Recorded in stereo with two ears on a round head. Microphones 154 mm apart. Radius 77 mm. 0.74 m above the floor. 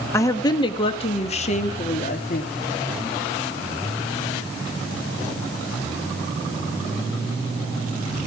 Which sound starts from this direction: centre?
A woman speaking, at 0.1 s.